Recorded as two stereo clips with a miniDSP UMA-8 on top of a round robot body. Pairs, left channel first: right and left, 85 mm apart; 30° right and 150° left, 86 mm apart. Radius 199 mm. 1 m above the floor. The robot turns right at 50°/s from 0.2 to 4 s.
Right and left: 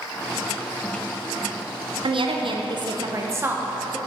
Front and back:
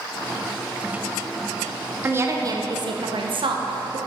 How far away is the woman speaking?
About 0.9 m.